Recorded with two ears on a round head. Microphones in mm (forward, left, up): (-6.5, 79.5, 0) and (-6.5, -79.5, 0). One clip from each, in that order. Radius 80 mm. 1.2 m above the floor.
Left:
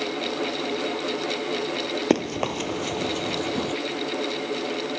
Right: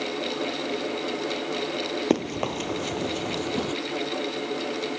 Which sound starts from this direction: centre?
Running footsteps, at 2.1 s.